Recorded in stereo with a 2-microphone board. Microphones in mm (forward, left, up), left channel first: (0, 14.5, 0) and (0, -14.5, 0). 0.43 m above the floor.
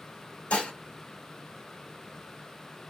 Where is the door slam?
I don't hear a door slam.